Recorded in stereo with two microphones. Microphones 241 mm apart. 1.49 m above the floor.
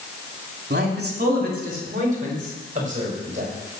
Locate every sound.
0.7 s a man speaking: 45° right (ahead or behind), 2.5 m; by 3.5 s 30° right (ahead or behind), 6 m